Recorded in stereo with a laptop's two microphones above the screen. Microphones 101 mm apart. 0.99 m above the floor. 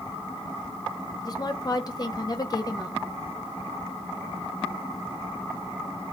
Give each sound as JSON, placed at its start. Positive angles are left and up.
{"t": 1.2, "sound": "a woman speaking", "side_deg": 40, "distance_m": 0.5}